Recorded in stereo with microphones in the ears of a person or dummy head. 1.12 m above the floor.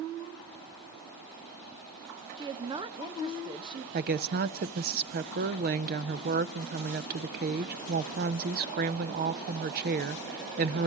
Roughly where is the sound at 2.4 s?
Right.